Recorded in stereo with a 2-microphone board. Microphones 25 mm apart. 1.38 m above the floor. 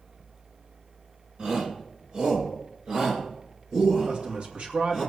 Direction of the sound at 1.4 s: 50° right (ahead or behind).